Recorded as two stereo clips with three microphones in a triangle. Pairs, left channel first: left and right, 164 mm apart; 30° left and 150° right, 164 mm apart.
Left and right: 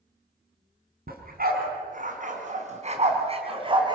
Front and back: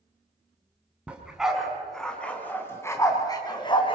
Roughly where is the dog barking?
Ahead right.